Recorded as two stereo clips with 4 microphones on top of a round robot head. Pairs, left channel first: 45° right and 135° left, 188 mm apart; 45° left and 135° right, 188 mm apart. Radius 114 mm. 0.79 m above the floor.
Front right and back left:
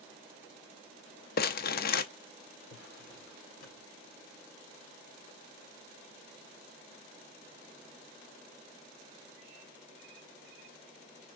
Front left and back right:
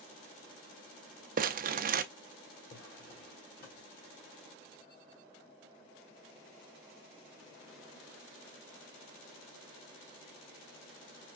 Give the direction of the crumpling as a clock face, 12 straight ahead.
3 o'clock.